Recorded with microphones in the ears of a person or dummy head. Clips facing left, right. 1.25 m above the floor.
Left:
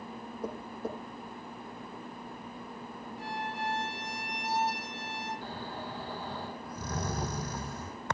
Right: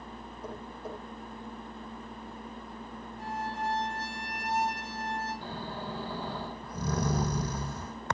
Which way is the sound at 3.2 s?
30° right (ahead or behind).